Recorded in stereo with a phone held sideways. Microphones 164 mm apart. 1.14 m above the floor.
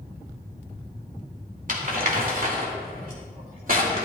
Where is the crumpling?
60° right (ahead or behind), 2.5 m.